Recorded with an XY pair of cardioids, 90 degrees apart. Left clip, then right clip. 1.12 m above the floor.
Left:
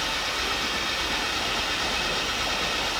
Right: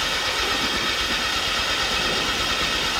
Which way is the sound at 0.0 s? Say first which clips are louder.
Right 4 dB; 55° right.